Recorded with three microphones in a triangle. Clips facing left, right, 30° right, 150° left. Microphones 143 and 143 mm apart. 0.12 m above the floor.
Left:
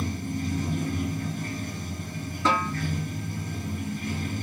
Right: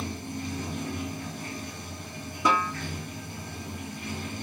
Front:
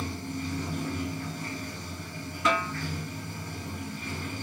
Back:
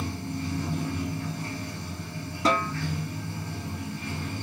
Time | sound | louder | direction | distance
0.0 | running water | left 4 dB, back 2 dB | 85° left | 1.2 m
2.5 | a snare drum | even, back 2 dB | 165° right | 0.6 m